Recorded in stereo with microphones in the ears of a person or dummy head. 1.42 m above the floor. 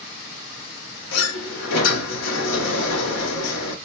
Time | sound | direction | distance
1.1 | a sliding door | 75° left (ahead or behind) | 1.1 m